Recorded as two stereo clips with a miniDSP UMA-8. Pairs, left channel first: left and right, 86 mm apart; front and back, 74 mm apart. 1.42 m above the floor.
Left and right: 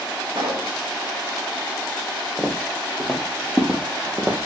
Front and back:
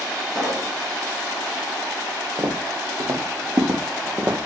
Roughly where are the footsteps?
Behind.